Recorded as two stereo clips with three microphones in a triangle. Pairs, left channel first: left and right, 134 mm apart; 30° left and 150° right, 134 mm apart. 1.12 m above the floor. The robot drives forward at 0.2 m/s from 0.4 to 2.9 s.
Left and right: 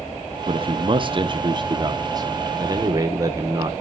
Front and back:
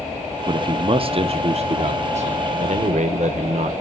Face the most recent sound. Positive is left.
turn(degrees=-150)